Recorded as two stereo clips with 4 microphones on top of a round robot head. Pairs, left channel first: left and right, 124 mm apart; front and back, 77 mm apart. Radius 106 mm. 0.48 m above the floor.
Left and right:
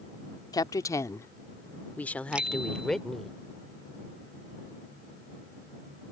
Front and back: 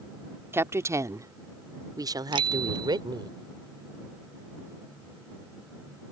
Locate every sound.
0.5 s a woman speaking: 140° left; by 3.3 s straight behind
2.3 s a bicycle bell: 170° right